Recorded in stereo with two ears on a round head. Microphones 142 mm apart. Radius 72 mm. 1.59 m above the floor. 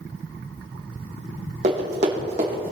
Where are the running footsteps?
45° right (ahead or behind), 3.5 m; by 2.7 s 35° right (ahead or behind), 4 m.